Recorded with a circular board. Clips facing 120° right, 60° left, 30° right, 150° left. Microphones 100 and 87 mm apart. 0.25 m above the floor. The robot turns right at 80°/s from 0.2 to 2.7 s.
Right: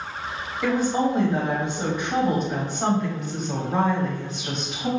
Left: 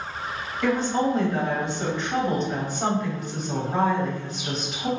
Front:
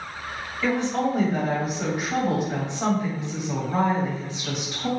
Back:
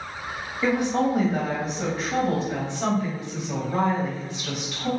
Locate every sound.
0.6 s a woman speaking: 170° left, 0.9 m; by 4.9 s 25° right, 0.9 m